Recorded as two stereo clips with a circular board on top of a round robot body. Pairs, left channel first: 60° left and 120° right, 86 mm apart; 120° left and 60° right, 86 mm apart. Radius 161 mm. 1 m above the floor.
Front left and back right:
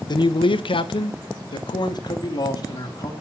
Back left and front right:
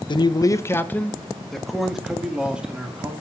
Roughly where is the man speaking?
Left.